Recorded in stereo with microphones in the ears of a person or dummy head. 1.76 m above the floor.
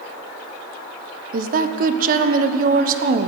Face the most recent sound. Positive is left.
turn(degrees=-55)  # may be behind; listen again after turning